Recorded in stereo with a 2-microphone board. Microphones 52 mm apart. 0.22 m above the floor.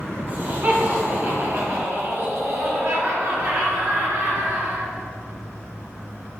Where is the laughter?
35° right (ahead or behind), 2.5 m; by 4.9 s 60° right (ahead or behind), 4.5 m.